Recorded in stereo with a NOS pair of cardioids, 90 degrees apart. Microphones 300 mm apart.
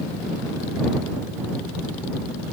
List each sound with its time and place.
Only background noise.